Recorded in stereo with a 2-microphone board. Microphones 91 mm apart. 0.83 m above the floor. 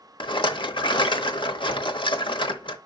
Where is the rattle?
60° left (ahead or behind), 0.9 m.